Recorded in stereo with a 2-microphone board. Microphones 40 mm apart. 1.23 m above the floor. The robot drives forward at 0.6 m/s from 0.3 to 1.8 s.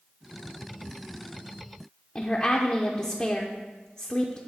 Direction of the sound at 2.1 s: 30° left (ahead or behind).